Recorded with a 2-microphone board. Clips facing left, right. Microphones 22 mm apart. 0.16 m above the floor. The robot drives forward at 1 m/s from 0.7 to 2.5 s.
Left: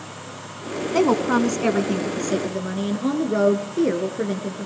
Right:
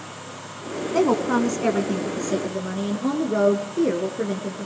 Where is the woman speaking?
30° left (ahead or behind), 1.3 m; by 4.7 s 20° left (ahead or behind), 2 m.